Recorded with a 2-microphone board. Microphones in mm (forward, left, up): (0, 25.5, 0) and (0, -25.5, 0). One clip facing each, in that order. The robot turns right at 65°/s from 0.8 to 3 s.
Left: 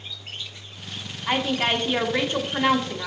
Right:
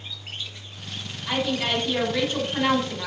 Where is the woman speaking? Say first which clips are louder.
Left 2 dB; 70° left, 1.4 m; by 3.1 s 175° right, 1.4 m.